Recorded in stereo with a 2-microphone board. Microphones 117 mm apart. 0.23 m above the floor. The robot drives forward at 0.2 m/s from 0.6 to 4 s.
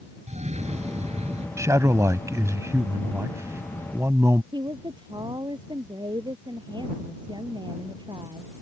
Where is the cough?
65° right (ahead or behind); by 1.5 s 60° right (ahead or behind).